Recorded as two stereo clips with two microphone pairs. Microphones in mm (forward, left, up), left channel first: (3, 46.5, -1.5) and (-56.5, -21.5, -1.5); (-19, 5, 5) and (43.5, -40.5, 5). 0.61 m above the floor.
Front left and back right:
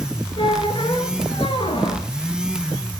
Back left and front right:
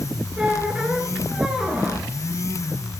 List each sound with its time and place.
0.4 s a squeak: 45° left, 1.7 m